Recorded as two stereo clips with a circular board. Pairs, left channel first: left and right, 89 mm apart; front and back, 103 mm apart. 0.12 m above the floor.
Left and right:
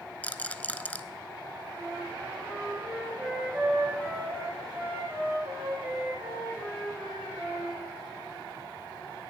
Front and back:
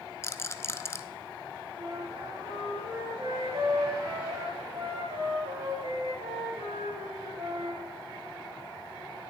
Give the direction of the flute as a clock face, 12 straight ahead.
5 o'clock.